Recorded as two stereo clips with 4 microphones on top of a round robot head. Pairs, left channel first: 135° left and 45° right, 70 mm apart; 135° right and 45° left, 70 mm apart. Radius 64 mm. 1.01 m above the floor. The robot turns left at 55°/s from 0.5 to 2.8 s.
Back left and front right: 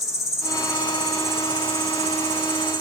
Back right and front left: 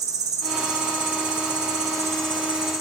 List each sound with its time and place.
0.0 s an insect: 85° left, 0.7 m; by 2.8 s 45° right, 0.7 m